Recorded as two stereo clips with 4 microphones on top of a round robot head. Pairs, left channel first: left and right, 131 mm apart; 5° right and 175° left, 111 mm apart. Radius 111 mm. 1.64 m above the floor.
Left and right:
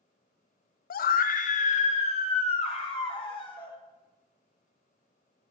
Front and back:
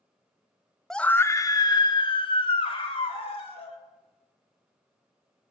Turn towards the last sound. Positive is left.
turn(degrees=30)